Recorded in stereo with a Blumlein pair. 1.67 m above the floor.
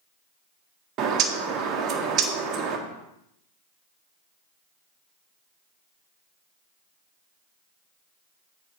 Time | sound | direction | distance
1.0 | a bird | 30° right | 1.5 m